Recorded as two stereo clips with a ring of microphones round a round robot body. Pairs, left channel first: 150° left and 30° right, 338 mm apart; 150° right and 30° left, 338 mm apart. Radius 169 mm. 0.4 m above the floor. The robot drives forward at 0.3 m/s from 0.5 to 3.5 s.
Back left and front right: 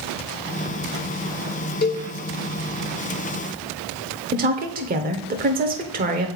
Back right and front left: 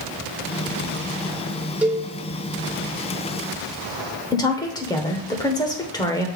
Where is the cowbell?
115° left, 1.0 m; by 2.1 s 120° left, 1.0 m.